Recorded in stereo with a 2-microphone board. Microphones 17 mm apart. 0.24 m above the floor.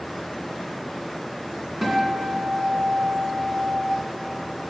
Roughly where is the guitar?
Centre.